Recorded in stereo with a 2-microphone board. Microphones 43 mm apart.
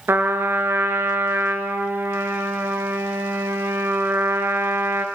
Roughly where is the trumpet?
Right.